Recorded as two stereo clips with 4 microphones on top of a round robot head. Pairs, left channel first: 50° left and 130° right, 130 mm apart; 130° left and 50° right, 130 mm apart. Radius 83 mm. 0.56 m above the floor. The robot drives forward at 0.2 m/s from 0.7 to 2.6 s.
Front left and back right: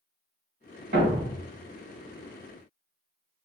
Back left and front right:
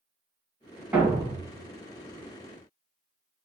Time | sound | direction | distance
0.9 | a thud | 135° right | 2 m